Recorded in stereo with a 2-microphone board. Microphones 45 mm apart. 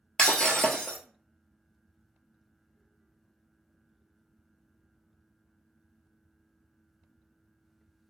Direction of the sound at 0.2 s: 20° left (ahead or behind).